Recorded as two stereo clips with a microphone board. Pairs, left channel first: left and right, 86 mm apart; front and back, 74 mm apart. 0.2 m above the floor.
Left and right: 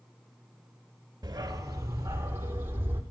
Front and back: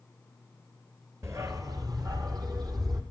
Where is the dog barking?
130° right, 1.4 m; by 3.0 s 155° right, 3 m.